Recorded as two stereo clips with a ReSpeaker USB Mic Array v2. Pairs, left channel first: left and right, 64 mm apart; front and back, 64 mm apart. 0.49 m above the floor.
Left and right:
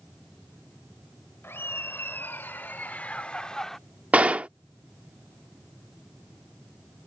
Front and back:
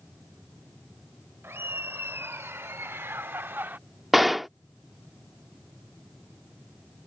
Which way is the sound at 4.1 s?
90° right.